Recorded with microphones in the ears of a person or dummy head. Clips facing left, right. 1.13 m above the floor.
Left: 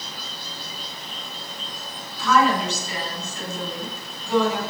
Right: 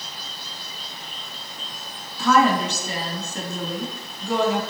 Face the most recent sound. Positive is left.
turn(degrees=-45)  # may be behind; listen again after turning